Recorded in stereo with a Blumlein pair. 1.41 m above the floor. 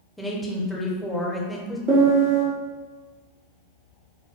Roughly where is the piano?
Ahead right.